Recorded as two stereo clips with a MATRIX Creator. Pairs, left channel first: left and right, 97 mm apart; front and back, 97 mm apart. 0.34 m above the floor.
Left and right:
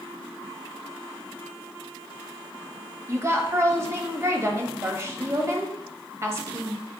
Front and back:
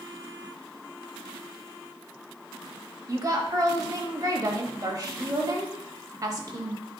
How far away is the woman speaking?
About 1.2 m.